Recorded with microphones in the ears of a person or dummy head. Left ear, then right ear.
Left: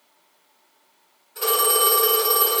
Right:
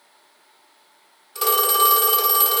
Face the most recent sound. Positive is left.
turn(degrees=-50)  # may be behind; listen again after turning